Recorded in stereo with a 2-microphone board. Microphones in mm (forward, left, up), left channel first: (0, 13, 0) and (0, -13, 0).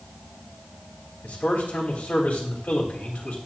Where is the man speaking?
75° left (ahead or behind), 2.5 m.